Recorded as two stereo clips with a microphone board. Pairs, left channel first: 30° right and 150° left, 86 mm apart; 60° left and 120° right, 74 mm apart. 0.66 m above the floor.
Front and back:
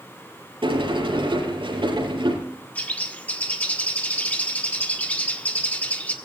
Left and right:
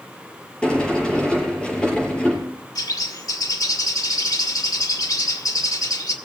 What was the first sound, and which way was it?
A sliding door, 135° left.